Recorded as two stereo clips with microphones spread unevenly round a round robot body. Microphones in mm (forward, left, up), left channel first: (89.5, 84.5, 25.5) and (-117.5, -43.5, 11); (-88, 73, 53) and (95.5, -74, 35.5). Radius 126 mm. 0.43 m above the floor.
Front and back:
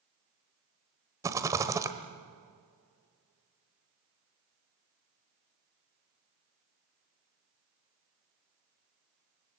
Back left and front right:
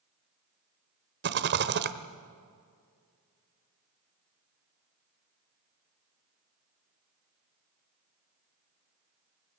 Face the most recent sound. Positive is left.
turn(degrees=-75)